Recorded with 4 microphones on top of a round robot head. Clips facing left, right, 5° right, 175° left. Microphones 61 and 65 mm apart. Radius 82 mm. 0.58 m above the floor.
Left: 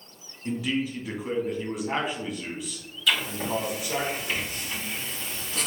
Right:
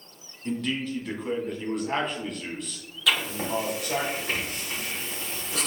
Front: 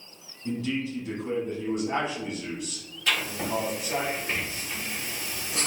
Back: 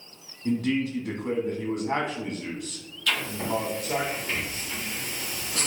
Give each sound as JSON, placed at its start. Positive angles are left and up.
{"t": 0.5, "sound": "a man speaking", "azimuth_deg": 180, "distance_m": 1.3}
{"t": 3.1, "sound": "writing", "azimuth_deg": -70, "distance_m": 2.0}